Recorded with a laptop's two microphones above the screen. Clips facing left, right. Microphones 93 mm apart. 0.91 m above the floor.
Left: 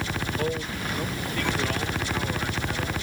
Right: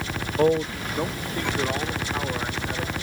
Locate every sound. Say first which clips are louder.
0.4 s a man speaking: right 8 dB; 40° right (ahead or behind); by 2.9 s 20° right (ahead or behind)